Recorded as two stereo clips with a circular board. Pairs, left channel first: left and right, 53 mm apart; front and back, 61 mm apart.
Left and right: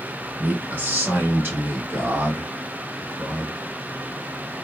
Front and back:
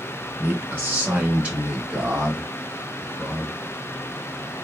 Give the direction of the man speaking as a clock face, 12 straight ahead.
4 o'clock.